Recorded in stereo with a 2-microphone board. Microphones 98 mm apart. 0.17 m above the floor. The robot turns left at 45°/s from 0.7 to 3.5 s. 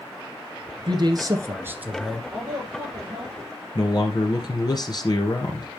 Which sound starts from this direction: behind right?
A man speaking, at 0.9 s.